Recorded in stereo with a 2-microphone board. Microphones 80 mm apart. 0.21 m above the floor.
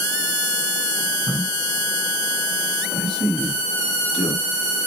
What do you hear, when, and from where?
1.3 s a man speaking: centre (ahead or behind), 1.4 m; by 4.5 s 5° left (ahead or behind), 1.9 m